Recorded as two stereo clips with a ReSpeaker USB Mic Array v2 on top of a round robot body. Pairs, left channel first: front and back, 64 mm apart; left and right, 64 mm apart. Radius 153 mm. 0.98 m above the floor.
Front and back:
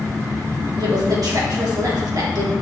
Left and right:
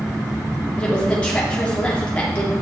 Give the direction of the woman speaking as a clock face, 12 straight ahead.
7 o'clock.